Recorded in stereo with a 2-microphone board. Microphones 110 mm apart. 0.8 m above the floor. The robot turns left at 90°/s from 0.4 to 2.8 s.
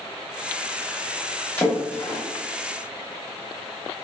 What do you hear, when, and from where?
1.6 s a splash: 20° left (ahead or behind), 1.0 m; by 2.2 s 30° left (ahead or behind), 1.0 m